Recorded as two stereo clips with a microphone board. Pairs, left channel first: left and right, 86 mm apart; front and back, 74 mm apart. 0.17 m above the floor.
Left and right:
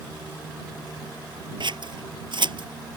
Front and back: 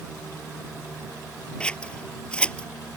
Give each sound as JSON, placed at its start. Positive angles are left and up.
{"t": 1.6, "sound": "scissors", "azimuth_deg": -75}